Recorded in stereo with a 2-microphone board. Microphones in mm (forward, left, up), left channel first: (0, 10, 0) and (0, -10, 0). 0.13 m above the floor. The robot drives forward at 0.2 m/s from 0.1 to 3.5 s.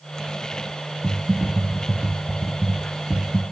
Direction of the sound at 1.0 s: 70° right (ahead or behind).